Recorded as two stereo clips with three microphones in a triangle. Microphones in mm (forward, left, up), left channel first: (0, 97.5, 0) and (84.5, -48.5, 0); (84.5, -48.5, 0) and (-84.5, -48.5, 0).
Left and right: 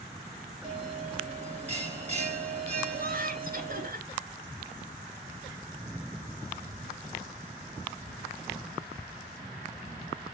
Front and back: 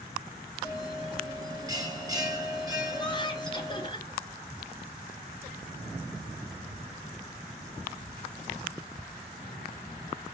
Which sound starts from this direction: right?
A bell, at 0.6 s.